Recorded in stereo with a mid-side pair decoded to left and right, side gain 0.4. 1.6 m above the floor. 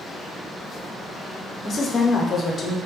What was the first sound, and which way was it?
A woman speaking, 50° left.